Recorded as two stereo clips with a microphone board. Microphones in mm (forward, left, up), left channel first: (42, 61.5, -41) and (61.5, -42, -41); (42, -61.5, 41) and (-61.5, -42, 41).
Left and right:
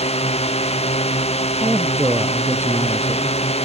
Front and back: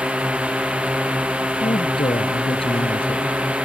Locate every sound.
0.0 s a drone: 90° left
1.6 s a woman speaking: 20° right